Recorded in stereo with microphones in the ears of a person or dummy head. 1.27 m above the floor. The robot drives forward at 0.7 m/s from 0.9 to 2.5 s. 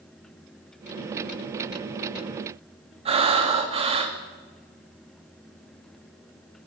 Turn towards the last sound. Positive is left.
turn(degrees=-30)  # may be behind; listen again after turning